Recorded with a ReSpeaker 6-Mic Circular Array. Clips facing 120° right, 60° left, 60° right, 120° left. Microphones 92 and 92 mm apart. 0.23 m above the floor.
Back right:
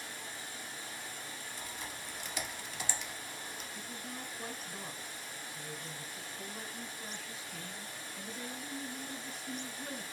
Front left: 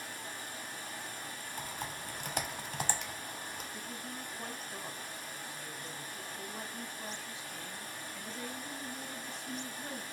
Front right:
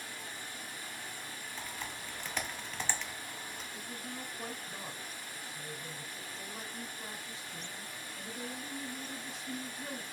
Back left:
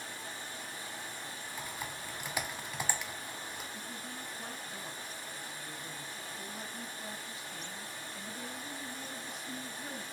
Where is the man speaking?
5° right, 2 m.